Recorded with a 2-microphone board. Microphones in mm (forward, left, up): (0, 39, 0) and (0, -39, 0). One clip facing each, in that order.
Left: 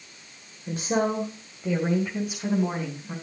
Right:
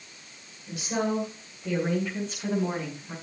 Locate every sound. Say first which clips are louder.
0.7 s a woman speaking: left 3 dB; 45° left (ahead or behind), 1.6 m; by 3.1 s 10° left (ahead or behind), 4 m